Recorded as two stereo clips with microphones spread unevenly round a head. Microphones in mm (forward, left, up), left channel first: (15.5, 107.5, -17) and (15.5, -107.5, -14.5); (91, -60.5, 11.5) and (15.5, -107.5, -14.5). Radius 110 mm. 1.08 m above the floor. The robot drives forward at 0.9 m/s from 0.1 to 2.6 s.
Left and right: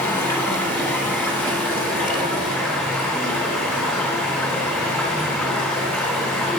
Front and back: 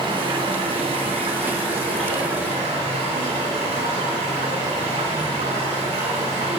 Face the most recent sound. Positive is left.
turn(degrees=175)